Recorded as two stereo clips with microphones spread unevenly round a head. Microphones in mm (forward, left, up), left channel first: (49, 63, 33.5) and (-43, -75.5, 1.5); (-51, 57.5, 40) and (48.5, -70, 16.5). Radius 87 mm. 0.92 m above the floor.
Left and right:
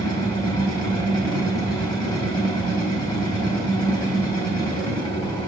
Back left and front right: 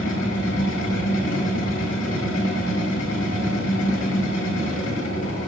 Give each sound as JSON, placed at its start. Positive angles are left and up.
{"t": 0.0, "sound": "a machine running", "azimuth_deg": 125, "distance_m": 1.9}